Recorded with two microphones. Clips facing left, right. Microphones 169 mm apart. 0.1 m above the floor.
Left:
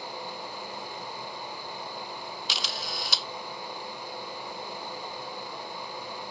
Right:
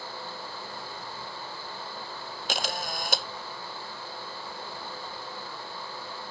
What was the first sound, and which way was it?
A camera shutter, 55° right (ahead or behind).